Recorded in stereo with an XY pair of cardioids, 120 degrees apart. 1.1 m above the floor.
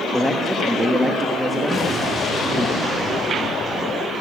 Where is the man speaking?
Straight ahead, 1.2 m.